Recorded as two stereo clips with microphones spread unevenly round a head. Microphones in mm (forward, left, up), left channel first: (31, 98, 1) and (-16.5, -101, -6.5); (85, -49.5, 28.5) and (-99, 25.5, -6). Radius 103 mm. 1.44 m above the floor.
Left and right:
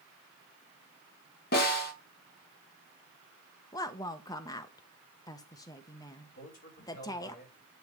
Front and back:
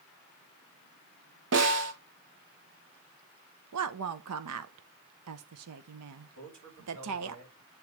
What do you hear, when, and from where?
1.5 s a snare drum: 125° left, 1.9 m
3.7 s a woman speaking: 150° left, 0.7 m
6.3 s a man speaking: 130° left, 3 m